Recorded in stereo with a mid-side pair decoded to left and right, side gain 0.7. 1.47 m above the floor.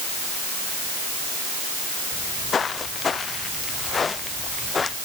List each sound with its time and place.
2.1 s footsteps: 30° left; by 5.0 s 20° left